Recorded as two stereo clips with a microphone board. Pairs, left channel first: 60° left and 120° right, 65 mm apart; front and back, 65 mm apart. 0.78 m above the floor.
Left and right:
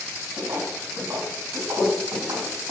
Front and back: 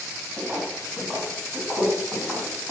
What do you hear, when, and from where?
0.4 s footsteps: 110° right, 3 m; by 2.7 s 95° right, 4 m